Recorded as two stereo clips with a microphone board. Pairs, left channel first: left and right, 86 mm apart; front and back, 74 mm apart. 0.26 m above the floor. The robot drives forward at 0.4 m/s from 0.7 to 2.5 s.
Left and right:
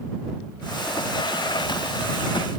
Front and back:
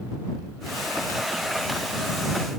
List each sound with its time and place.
Only background noise.